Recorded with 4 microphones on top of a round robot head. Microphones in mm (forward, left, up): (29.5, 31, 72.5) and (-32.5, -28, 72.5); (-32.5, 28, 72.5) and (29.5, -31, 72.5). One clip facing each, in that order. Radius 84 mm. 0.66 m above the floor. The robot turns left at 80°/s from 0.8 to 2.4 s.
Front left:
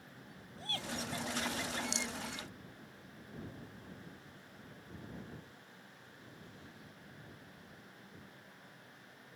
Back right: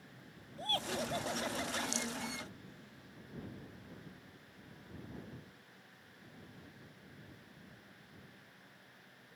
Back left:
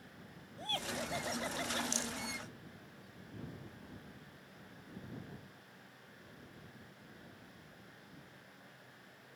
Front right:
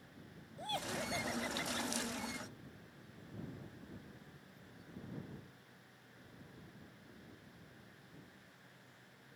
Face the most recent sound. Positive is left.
turn(degrees=40)